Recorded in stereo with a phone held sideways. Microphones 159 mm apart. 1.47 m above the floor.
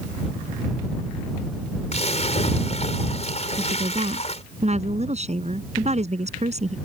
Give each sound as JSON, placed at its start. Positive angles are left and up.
{"t": 1.9, "sound": "a splash", "side_deg": 45}
{"t": 3.6, "sound": "a woman speaking", "side_deg": -45}